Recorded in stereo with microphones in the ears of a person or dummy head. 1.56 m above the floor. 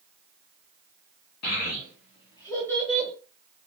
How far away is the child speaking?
About 0.9 m.